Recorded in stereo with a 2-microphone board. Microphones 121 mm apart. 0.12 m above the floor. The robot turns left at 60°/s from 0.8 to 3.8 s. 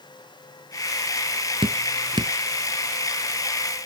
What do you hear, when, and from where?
1.6 s dripping: 45° right (ahead or behind), 0.5 m; by 2.3 s 35° right (ahead or behind), 0.5 m